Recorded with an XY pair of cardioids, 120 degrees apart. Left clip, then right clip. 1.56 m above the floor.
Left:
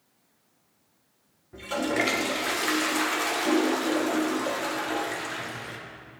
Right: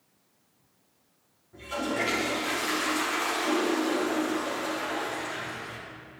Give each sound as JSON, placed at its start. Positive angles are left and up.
{"t": 1.5, "sound": "a toilet flushing", "azimuth_deg": 45, "distance_m": 1.7}